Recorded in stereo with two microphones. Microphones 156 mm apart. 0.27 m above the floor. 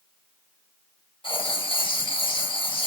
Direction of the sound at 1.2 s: 35° left (ahead or behind).